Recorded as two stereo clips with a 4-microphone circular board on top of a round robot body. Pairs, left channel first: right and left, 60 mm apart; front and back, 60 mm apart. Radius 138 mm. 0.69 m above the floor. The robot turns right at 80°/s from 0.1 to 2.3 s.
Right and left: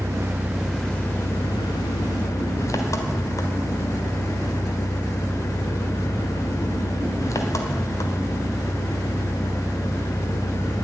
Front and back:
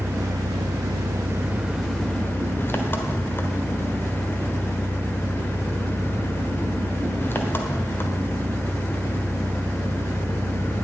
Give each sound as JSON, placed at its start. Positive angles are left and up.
{"t": 0.0, "sound": "an engine running", "azimuth_deg": 130, "distance_m": 1.4}